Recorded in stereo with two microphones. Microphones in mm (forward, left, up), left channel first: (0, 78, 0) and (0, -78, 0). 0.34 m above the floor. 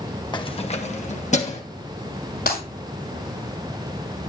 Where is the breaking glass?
90° left, 6 m.